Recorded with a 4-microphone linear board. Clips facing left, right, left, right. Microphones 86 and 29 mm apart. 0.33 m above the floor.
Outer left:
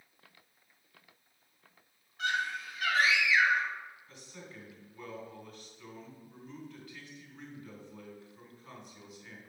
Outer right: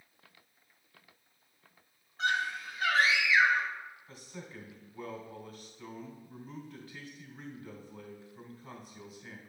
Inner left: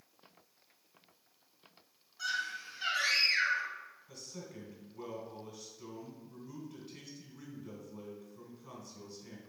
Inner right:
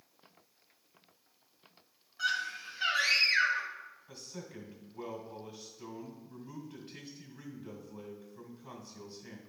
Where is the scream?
35° right (ahead or behind), 1.7 m.